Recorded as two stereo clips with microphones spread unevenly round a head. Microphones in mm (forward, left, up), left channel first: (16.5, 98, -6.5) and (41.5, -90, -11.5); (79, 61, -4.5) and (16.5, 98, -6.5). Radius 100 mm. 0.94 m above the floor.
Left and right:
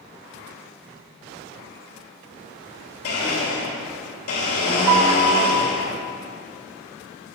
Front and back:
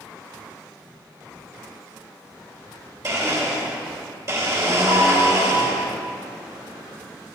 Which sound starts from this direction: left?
A blender, at 3.0 s.